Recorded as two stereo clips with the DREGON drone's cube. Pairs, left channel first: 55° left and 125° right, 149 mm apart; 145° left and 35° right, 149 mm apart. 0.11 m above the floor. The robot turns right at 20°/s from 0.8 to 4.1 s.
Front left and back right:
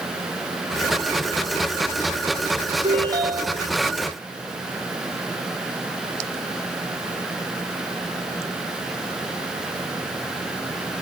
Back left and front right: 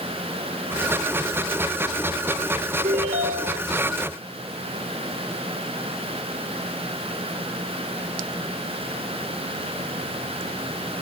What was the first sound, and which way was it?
A ringtone, 70° right.